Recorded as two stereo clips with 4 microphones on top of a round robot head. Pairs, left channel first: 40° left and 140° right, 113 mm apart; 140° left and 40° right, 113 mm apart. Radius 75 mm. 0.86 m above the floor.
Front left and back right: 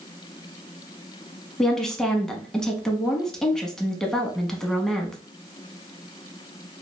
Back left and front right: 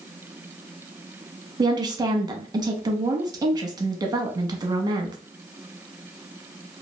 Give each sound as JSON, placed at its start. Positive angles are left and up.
{"t": 1.6, "sound": "a woman speaking", "azimuth_deg": -40, "distance_m": 0.9}